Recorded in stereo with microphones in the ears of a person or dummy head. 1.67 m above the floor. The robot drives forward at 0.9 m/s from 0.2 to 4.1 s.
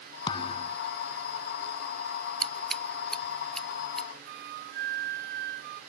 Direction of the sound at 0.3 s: 30° left (ahead or behind).